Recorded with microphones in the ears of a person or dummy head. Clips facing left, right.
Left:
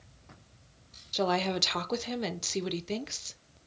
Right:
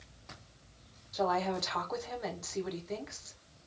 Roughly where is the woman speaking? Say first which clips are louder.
Left 2 dB; left.